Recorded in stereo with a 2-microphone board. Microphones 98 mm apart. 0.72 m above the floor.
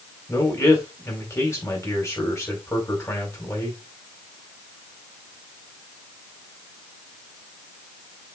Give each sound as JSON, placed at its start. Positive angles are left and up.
{"t": 0.3, "sound": "a man speaking", "side_deg": 30, "distance_m": 4.0}